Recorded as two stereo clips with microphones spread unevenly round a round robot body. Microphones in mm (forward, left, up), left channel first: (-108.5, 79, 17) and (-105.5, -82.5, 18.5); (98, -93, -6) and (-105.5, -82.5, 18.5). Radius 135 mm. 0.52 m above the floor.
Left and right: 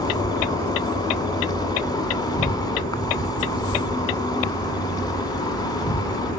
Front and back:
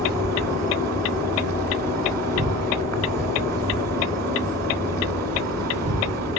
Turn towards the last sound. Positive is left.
turn(degrees=160)